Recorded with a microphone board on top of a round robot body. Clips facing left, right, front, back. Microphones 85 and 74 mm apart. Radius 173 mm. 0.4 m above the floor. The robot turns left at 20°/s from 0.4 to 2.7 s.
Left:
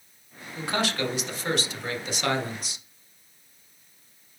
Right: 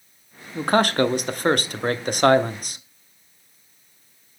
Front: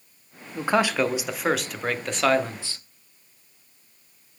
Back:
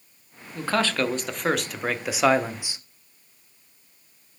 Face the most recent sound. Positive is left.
turn(degrees=-110)